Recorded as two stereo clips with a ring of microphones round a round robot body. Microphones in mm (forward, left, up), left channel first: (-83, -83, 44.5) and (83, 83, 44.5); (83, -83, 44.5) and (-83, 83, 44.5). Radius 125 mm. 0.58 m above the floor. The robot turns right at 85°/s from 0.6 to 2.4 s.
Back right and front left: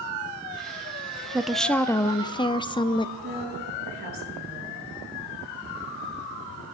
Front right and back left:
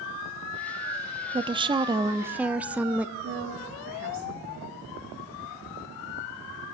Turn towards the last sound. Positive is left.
turn(degrees=100)